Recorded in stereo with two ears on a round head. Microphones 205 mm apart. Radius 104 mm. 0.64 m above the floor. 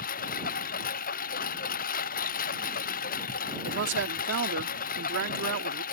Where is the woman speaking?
55° right (ahead or behind).